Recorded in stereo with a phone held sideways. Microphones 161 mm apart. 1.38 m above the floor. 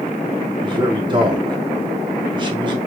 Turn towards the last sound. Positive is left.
turn(degrees=-30)  # may be behind; listen again after turning